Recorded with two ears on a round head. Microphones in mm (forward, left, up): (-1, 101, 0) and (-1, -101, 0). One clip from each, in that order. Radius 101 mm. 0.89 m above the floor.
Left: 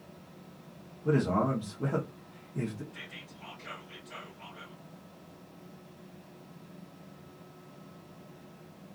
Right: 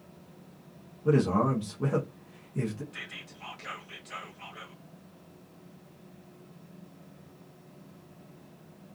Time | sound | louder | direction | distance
1.1 | a man speaking | right 3 dB | 10° right (ahead or behind) | 0.7 m
2.9 | whispering | right 4 dB | 40° right (ahead or behind) | 1.2 m